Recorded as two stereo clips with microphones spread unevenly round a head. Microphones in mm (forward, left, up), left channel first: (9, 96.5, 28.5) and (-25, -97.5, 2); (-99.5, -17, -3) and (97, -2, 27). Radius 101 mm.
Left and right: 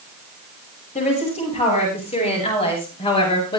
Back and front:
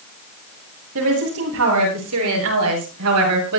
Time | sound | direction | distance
0.9 | a woman speaking | 20° left | 9 m